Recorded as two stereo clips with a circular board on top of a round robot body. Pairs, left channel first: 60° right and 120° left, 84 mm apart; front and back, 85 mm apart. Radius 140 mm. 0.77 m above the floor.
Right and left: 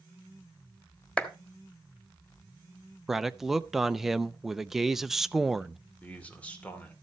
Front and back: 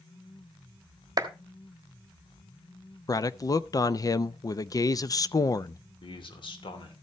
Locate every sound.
1.2 s a clap: 140° right, 1.5 m
3.1 s a man speaking: 35° left, 0.7 m
6.0 s a man speaking: 15° left, 2.5 m